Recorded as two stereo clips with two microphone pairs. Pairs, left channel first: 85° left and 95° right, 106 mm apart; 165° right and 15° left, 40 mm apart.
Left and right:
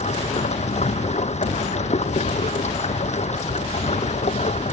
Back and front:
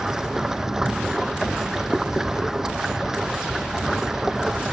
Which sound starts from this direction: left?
Running water, at 0.0 s.